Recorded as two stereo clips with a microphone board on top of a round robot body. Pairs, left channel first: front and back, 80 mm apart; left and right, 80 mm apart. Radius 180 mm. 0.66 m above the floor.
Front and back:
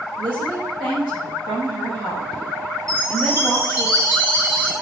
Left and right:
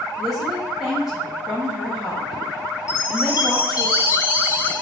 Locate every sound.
0.2 s a woman speaking: 175° right, 5.5 m
2.9 s a chime: 135° left, 5.5 m